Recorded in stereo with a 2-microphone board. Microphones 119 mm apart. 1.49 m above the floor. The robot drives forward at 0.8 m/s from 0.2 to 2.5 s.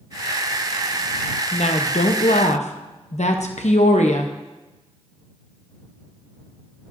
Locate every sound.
1.5 s a woman speaking: 60° left (ahead or behind), 1.0 m; by 4.3 s 70° left (ahead or behind), 0.9 m